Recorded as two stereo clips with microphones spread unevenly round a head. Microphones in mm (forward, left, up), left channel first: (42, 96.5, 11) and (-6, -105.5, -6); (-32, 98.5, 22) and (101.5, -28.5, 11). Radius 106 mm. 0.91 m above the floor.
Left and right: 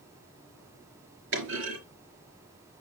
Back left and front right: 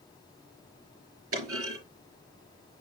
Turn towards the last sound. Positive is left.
turn(degrees=-75)